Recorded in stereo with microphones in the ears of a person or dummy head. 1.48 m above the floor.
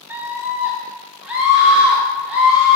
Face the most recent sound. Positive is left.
turn(degrees=0)  # may be behind; listen again after turning